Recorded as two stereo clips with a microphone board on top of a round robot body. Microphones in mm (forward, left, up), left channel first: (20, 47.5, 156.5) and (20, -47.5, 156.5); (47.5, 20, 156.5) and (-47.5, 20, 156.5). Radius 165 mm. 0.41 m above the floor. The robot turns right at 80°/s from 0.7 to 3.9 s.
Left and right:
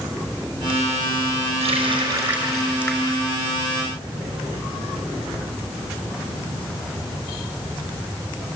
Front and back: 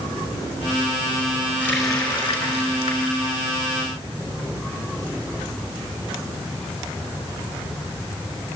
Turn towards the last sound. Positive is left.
turn(degrees=105)